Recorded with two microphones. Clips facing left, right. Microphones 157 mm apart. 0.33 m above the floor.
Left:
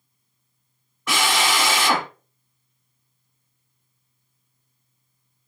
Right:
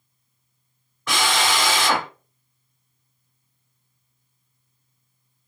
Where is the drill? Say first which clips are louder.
Even; 5° left (ahead or behind), 1.3 m.